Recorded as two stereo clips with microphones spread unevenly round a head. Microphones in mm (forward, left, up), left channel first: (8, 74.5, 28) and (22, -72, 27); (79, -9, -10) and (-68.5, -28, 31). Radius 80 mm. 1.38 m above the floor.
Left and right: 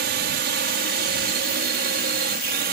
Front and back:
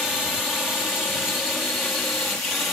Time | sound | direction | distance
0.0 | a drone | 80° right | ?